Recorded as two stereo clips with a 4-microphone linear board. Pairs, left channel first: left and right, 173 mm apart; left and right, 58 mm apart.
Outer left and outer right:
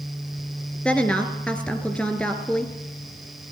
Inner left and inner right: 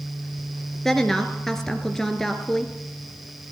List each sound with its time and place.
0.8 s a woman speaking: 5° left (ahead or behind), 2.5 m